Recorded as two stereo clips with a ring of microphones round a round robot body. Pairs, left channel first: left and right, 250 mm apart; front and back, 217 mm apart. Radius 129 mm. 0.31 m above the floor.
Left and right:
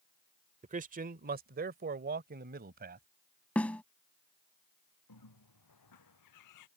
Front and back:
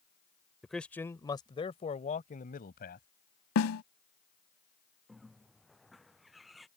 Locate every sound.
0.6 s a man speaking: 90° right; by 3.1 s 45° right
3.5 s a snare drum: 5° left
5.1 s a bird: 90° left